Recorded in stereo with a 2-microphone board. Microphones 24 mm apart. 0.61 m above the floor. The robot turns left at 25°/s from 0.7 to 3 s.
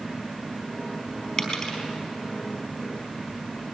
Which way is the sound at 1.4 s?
35° left (ahead or behind).